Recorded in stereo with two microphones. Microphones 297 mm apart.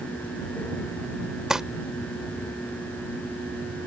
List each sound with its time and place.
1.5 s crumpling: centre (ahead or behind)